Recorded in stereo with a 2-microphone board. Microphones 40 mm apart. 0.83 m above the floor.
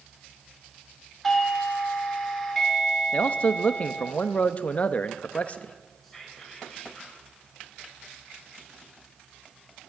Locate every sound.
1.2 s a doorbell: 5° left (ahead or behind), 1.9 m
3.1 s a man speaking: 40° left (ahead or behind), 0.7 m
6.0 s whispering: centre (ahead or behind), 6 m